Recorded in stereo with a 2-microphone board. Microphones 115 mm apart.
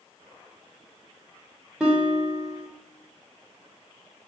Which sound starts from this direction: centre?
A guitar, at 1.8 s.